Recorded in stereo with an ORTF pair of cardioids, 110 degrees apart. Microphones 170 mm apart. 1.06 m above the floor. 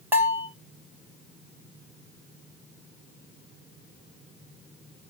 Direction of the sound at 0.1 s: 15° right.